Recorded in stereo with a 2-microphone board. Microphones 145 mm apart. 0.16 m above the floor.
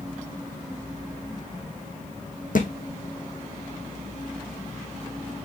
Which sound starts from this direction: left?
A thud, at 2.5 s.